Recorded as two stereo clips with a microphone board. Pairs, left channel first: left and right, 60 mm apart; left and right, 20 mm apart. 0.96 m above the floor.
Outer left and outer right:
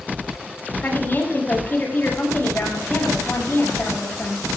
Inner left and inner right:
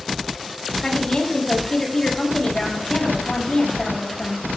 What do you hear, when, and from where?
0.8 s a woman speaking: 35° left (ahead or behind), 6 m